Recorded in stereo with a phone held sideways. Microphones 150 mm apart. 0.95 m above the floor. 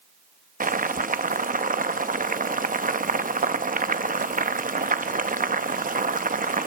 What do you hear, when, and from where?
0.6 s boiling: 65° right (ahead or behind), 0.7 m